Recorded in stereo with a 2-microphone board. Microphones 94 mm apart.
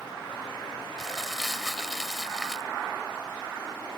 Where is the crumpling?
5° left (ahead or behind).